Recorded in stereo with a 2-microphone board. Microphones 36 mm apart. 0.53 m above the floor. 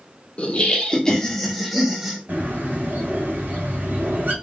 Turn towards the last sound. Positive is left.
turn(degrees=-50)  # may be behind; listen again after turning